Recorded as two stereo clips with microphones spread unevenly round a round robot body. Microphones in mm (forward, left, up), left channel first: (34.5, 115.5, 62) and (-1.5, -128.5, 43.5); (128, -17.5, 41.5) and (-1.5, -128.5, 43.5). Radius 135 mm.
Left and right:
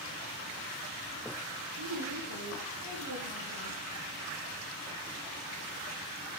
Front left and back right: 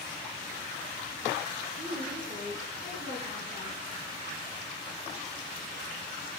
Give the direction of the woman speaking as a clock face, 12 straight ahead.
3 o'clock.